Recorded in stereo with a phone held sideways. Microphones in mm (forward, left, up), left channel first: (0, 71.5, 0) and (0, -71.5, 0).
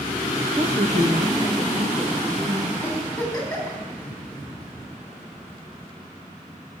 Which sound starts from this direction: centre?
A giggle, at 2.8 s.